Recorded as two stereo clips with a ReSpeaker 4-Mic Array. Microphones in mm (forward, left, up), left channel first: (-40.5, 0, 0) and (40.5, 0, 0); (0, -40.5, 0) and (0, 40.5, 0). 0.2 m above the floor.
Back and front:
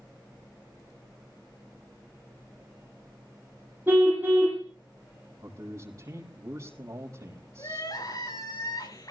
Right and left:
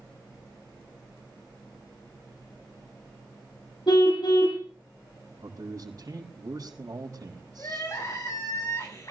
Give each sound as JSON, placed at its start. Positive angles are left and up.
{"t": 3.9, "sound": "a car horn", "azimuth_deg": -65, "distance_m": 6.0}
{"t": 5.4, "sound": "a man speaking", "azimuth_deg": 45, "distance_m": 5.5}
{"t": 7.6, "sound": "crying", "azimuth_deg": -140, "distance_m": 8.0}